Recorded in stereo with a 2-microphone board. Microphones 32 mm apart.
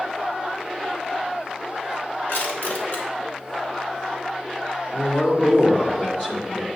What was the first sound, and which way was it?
Crushing, 85° left.